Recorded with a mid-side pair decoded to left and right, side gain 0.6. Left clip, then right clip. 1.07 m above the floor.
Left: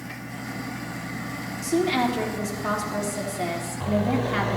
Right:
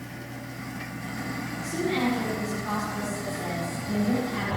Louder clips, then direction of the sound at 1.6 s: Left 5 dB; 65° left.